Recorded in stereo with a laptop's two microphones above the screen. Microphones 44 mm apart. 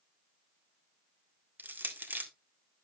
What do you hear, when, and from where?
1.6 s crushing: 50° right (ahead or behind), 1.6 m